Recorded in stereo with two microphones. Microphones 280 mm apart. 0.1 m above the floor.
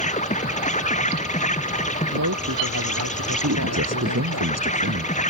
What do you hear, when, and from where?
0.0 s an insect: 25° left (ahead or behind)
2.1 s a man speaking: 85° right
3.4 s a man speaking: 60° right (ahead or behind)